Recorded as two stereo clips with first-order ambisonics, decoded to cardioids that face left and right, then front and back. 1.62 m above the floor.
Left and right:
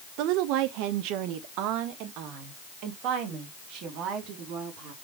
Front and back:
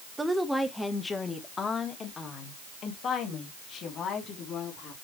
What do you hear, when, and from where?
0.2 s a woman speaking: 100° right, 1.0 m; by 4.9 s 55° right, 3.5 m